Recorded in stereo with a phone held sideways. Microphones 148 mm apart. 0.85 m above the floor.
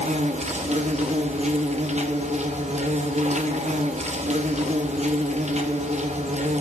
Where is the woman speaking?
No woman speaking in this recording.